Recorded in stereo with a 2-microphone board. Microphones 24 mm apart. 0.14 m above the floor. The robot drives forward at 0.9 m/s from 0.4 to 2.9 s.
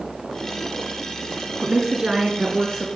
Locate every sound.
1.6 s a woman speaking: 25° right (ahead or behind), 1.6 m; by 2.9 s 15° right (ahead or behind), 2.5 m